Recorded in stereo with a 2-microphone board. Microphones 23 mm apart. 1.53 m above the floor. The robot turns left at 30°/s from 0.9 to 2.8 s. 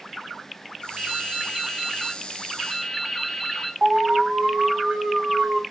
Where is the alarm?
55° right (ahead or behind), 1.1 m.